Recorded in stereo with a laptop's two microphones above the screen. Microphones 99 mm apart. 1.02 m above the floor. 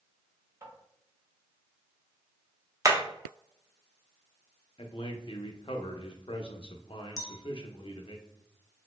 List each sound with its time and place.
0.6 s tapping: 35° right (ahead or behind), 1.5 m
2.9 s hammering: 35° right (ahead or behind), 0.6 m
4.8 s a man speaking: 65° left (ahead or behind), 0.5 m
7.2 s a clink: 35° left (ahead or behind), 0.5 m